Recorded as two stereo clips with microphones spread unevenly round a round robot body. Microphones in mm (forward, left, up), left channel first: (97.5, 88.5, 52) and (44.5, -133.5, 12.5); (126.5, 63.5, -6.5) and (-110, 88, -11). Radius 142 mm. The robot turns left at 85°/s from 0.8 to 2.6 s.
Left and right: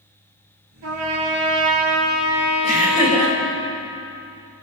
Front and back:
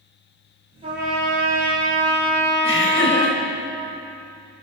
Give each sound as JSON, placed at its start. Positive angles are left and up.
{"t": 0.8, "sound": "a trumpet", "azimuth_deg": -115, "distance_m": 4.5}
{"t": 2.6, "sound": "laughter", "azimuth_deg": 25, "distance_m": 6.5}